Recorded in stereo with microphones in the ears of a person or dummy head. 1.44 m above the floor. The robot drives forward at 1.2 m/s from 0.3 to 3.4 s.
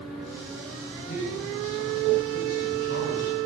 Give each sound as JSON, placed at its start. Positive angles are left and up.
{"t": 1.1, "sound": "a man speaking", "side_deg": 40, "distance_m": 8.5}